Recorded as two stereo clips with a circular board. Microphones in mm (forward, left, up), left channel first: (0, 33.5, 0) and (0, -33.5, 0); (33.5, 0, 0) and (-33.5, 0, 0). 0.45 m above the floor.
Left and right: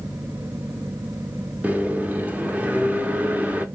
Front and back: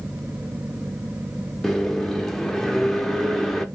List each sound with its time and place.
1.6 s a microwave: 75° right, 0.5 m